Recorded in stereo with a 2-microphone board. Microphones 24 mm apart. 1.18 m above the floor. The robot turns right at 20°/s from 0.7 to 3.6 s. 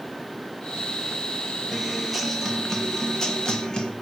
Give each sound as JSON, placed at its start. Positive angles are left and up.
{"t": 1.7, "sound": "a guitar", "azimuth_deg": -5, "distance_m": 2.0}